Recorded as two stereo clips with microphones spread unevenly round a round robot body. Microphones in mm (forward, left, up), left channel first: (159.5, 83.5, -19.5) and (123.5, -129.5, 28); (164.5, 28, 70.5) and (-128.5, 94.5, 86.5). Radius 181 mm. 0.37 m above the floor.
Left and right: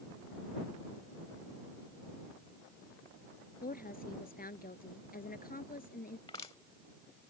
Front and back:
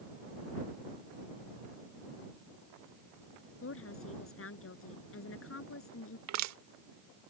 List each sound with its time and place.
3.6 s a woman speaking: 35° left
6.3 s crushing: 150° left